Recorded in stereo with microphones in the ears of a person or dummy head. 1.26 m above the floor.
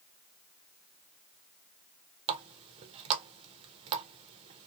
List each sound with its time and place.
2.3 s a running tap: 30° right (ahead or behind), 0.5 m